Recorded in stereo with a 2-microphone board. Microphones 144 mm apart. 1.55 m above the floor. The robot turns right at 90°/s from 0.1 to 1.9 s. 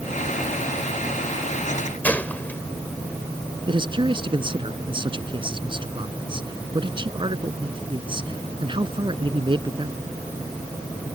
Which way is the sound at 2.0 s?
10° left (ahead or behind).